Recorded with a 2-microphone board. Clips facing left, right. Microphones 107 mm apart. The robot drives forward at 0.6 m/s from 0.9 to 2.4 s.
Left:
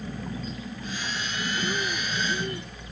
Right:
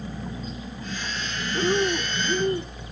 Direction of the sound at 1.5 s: 45° right (ahead or behind).